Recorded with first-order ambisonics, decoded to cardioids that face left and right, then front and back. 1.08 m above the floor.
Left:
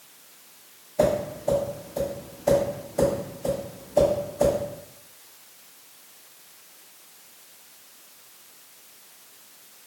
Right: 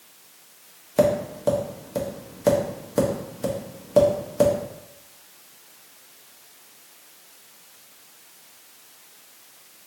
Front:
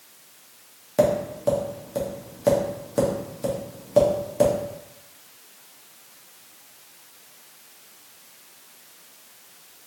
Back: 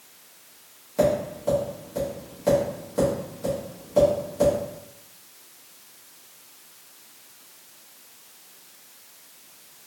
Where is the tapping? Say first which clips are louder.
Right 2 dB, front 2 dB; 65° right, 1.1 m.